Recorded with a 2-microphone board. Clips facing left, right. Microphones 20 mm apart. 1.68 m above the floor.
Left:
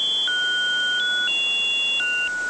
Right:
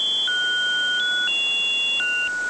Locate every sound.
Only background noise.